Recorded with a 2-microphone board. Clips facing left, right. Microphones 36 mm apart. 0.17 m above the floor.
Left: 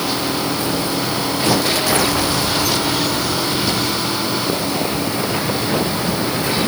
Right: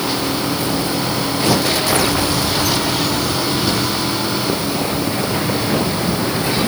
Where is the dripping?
No dripping in this recording.